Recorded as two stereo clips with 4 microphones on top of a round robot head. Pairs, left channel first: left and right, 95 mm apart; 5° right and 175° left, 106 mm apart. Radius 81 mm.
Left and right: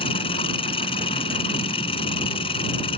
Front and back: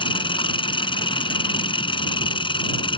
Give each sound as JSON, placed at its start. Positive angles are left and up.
{"t": 0.0, "sound": "an engine running", "azimuth_deg": 40}